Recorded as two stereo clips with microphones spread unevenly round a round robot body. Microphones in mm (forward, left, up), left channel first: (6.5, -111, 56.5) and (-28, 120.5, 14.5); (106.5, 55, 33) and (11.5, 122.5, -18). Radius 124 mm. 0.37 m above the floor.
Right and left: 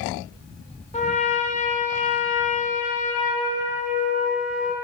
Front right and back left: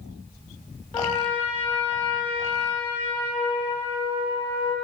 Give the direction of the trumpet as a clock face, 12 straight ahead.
2 o'clock.